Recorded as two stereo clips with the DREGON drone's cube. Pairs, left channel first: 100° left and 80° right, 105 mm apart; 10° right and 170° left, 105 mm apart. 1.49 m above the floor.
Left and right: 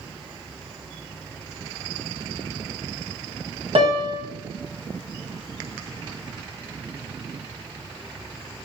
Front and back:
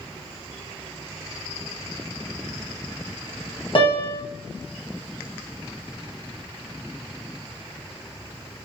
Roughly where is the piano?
Ahead right.